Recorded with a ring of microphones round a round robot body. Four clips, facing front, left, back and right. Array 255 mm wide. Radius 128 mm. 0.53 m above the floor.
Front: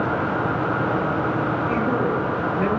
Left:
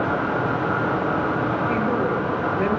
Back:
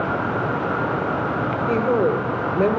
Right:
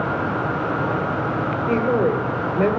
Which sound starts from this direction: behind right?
A woman speaking, at 1.7 s.